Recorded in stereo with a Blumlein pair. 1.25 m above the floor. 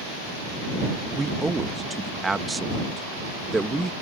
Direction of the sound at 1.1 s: 10° right.